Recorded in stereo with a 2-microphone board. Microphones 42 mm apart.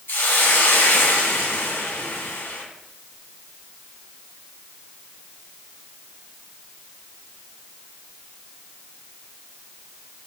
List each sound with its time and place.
0.1 s a hiss: 70° left (ahead or behind), 1.7 m